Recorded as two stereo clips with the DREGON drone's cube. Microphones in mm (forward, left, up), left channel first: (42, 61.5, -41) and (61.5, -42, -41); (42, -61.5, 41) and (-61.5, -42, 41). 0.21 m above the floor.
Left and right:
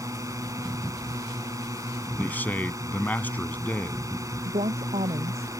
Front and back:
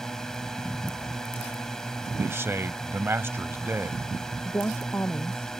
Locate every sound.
0.0 s a drone: 90° right
2.2 s a man speaking: 145° left
4.5 s a woman speaking: 80° right